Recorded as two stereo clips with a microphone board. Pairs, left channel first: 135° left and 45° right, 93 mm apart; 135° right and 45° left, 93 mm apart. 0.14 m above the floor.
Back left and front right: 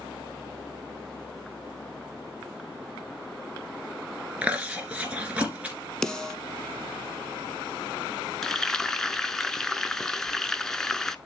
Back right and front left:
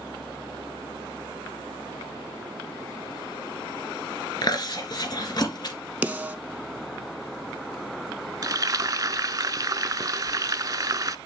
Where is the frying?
55° left, 0.6 m.